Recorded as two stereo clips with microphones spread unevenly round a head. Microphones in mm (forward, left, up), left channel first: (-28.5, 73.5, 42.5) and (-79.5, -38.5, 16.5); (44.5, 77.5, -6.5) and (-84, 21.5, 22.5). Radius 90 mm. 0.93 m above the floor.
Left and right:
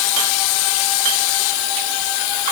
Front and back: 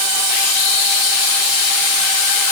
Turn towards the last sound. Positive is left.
No sound to turn to.